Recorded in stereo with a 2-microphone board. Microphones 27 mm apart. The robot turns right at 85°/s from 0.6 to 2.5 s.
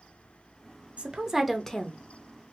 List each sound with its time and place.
1.0 s a woman speaking: 45° right, 0.5 m; by 2.0 s 40° left, 0.5 m